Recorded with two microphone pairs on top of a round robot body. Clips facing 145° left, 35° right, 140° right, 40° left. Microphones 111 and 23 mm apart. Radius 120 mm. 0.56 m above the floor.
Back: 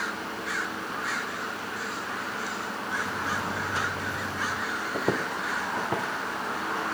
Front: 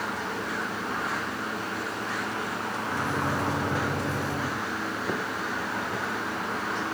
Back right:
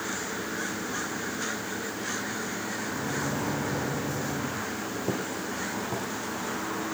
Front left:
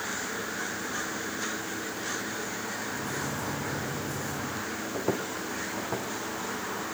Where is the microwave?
80° right, 1.4 m.